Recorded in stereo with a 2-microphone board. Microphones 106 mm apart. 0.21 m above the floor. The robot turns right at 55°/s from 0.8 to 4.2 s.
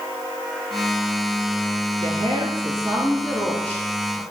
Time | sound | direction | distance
2.0 | a woman speaking | 75° right | 4 m